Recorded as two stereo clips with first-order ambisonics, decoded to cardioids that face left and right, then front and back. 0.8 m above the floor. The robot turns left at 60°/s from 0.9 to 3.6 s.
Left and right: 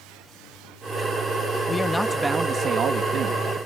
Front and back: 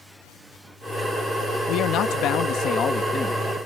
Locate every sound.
1.7 s a man speaking: 25° left; by 3.4 s 80° right